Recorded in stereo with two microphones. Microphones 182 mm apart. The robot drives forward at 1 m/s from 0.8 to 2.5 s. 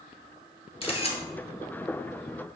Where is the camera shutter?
30° left (ahead or behind), 1.6 m; by 1.2 s 35° left (ahead or behind), 1.4 m.